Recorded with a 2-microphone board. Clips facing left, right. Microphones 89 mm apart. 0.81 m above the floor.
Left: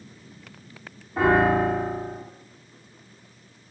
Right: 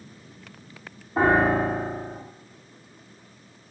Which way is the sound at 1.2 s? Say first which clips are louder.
Left 1 dB; 35° right (ahead or behind).